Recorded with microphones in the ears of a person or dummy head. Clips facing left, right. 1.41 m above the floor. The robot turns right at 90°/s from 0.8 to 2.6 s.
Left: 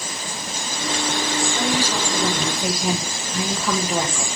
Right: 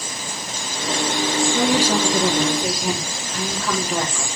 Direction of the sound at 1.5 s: 90° right.